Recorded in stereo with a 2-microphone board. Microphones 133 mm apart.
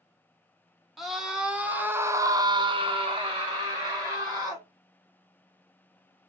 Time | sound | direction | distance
1.0 | a scream | centre (ahead or behind) | 1.0 m